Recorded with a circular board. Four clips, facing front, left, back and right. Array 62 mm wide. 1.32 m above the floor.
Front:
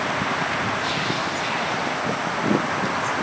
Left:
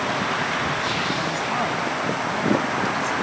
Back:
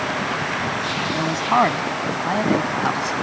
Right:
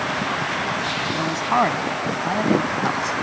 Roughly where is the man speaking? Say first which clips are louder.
Right 4 dB, back 6 dB; behind right.